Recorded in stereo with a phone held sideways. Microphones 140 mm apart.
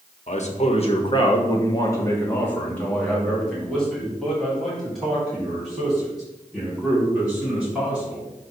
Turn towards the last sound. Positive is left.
turn(degrees=-10)  # may be behind; listen again after turning